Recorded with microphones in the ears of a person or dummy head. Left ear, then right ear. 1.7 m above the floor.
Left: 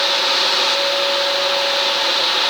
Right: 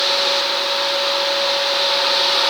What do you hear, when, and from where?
Only background noise.